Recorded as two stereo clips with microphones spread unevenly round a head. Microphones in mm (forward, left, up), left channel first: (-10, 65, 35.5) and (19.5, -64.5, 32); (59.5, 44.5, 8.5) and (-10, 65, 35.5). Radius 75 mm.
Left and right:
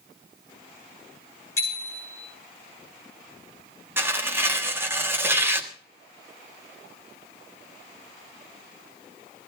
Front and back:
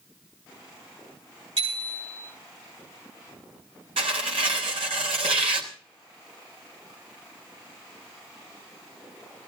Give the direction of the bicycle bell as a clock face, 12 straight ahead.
6 o'clock.